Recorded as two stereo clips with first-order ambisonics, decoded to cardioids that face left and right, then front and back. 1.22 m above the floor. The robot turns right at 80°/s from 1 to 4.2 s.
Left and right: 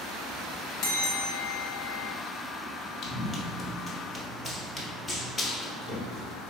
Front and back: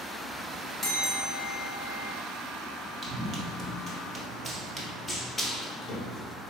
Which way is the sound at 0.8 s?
70° left.